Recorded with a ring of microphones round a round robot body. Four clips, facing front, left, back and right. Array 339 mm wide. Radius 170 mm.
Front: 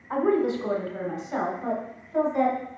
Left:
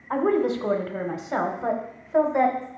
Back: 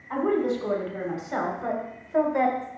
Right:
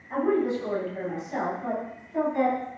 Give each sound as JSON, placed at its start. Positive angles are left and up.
{"t": 0.1, "sound": "a woman speaking", "azimuth_deg": 80, "distance_m": 1.5}